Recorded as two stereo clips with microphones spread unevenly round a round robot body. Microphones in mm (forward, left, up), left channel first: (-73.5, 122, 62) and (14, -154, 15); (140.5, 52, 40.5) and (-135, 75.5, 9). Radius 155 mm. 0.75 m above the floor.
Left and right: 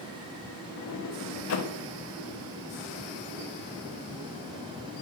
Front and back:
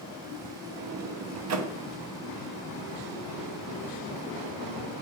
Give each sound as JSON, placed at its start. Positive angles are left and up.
{"t": 0.8, "sound": "a sliding door", "azimuth_deg": 150, "distance_m": 0.8}